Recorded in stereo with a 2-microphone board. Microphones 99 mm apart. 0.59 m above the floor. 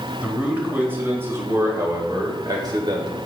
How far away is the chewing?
I don't hear chewing.